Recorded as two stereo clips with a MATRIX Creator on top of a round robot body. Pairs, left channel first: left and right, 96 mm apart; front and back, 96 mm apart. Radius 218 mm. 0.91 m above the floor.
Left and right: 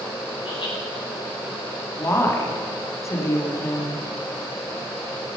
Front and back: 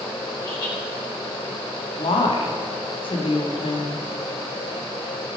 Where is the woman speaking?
30° left, 2.5 m.